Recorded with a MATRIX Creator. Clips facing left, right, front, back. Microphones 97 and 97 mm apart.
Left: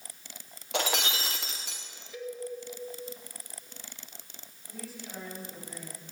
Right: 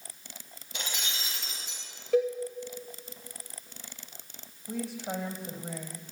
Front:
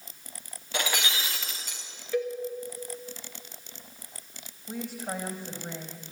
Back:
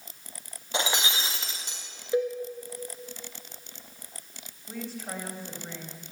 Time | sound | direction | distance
0.7 | breaking glass | 110° left | 3 m
2.1 | a cowbell | 115° right | 3.5 m
4.7 | a woman speaking | 75° right | 4.5 m